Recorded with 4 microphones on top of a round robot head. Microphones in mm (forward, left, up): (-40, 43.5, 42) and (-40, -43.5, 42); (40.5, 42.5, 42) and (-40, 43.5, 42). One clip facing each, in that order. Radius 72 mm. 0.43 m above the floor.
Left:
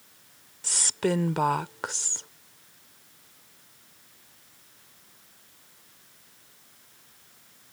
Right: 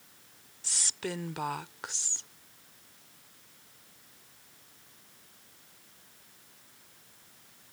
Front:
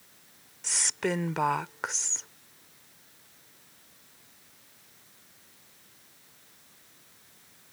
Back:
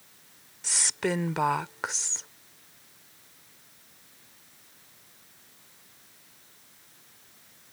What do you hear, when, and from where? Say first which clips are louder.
0.6 s a woman speaking: left 11 dB, back 1 dB; 90° left